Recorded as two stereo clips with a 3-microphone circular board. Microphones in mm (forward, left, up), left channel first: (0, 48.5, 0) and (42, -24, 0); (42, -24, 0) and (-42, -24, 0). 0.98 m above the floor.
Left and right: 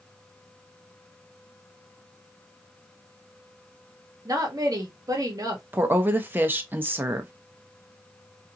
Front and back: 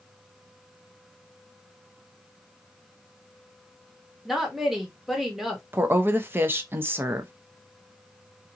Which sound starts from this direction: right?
A woman speaking, at 4.2 s.